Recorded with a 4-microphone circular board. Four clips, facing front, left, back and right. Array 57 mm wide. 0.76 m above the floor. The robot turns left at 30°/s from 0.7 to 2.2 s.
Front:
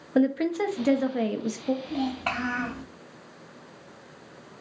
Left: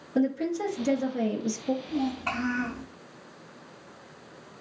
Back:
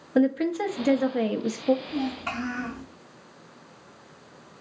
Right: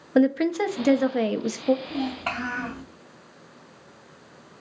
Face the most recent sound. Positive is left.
turn(degrees=-45)